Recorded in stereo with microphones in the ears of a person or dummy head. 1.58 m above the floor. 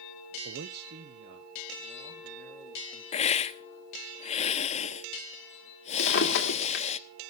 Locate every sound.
0.5 s a man speaking: 60° right (ahead or behind), 0.5 m; by 3.0 s 40° right (ahead or behind), 3.5 m
3.1 s a hiss: 30° left (ahead or behind), 0.7 m
6.0 s a drawer: 55° left (ahead or behind), 2 m